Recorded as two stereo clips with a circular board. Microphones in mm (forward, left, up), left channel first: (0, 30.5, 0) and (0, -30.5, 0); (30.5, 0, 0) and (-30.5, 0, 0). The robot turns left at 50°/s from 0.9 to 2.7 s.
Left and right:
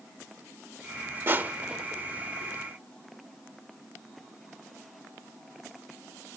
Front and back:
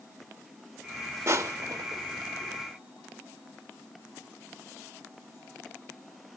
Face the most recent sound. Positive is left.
turn(degrees=145)